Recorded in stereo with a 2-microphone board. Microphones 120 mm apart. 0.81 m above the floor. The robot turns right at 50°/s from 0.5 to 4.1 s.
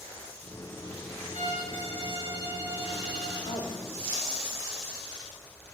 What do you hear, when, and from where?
1.3 s a violin: 95° right, 4 m; by 3.4 s 5° left, 4 m
3.5 s a man speaking: 60° left (ahead or behind), 2 m; by 3.9 s 40° left (ahead or behind), 2 m